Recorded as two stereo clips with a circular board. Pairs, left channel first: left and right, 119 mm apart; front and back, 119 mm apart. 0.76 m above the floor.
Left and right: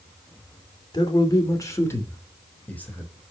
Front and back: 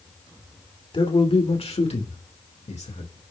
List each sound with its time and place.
0.9 s a man speaking: 40° left, 2.5 m; by 3.1 s 10° left, 4 m